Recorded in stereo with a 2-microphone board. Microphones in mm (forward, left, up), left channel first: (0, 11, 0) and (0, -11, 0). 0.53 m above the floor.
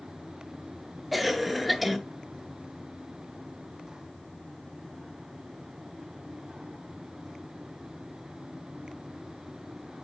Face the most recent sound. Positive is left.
turn(degrees=-5)  # may be behind; listen again after turning